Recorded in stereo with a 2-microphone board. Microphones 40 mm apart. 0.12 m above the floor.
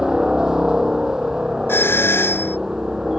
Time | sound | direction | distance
0.0 | a helicopter | 15° right (ahead or behind) | ?
1.7 | a doorbell | 75° left (ahead or behind) | ?